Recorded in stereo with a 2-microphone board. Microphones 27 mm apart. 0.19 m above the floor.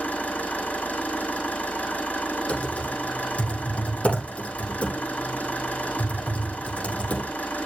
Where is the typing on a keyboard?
50° left (ahead or behind), 6.5 m.